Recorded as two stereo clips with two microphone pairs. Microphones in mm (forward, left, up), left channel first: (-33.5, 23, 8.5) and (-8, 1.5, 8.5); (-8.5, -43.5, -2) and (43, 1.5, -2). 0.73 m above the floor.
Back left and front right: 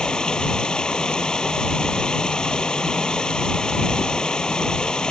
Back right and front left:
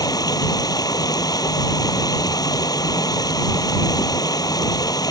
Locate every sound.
0.0 s running water: 155° right